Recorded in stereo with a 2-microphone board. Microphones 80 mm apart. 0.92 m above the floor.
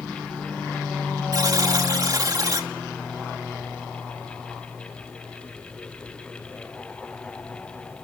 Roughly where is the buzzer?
Right.